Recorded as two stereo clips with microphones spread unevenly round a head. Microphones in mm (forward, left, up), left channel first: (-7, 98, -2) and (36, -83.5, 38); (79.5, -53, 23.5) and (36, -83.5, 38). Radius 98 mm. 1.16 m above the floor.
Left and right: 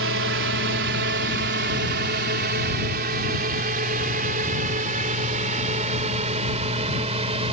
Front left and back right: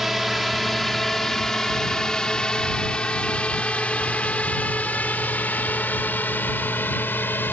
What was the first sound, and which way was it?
A drone, 55° right.